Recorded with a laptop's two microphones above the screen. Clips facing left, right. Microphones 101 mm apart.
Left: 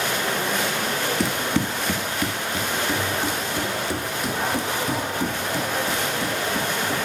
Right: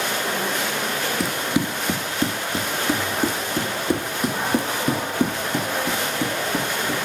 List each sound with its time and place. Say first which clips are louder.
1.2 s running footsteps: right 2 dB; centre (ahead or behind), 1.0 m; by 7.1 s 60° right (ahead or behind), 4 m